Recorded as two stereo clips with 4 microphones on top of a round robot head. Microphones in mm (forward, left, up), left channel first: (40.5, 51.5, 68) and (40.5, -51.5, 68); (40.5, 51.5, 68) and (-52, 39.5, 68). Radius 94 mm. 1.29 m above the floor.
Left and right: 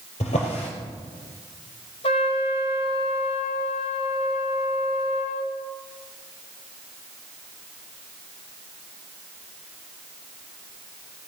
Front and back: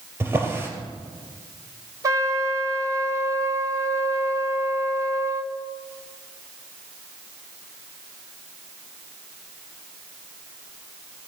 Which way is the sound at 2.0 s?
135° left.